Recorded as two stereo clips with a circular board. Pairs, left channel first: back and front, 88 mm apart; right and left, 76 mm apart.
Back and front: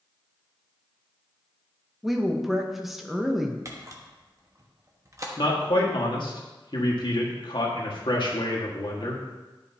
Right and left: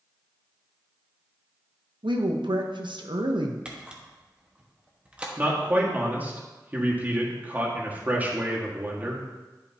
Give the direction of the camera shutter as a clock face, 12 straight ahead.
11 o'clock.